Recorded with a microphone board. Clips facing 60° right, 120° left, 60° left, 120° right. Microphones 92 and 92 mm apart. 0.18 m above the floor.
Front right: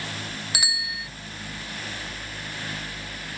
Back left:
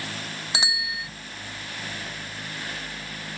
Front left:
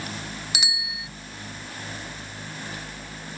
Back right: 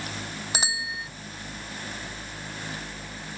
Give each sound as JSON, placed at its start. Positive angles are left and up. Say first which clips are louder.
{"t": 0.5, "sound": "a bicycle bell", "louder": "back left 5 dB, back right 3 dB", "azimuth_deg": -175}